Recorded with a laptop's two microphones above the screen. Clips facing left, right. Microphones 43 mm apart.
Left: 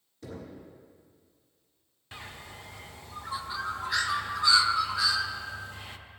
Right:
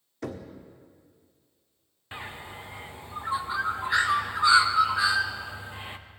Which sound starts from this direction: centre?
A bird, at 2.1 s.